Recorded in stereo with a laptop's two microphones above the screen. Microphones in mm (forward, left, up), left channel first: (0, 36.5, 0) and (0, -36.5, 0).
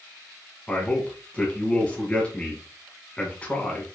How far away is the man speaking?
About 1.2 m.